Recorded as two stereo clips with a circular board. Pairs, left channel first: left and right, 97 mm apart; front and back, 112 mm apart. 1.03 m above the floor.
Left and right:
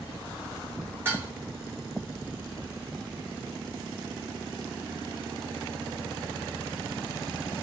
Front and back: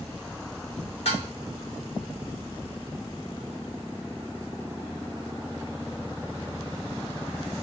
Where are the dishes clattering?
25° right, 1.6 m.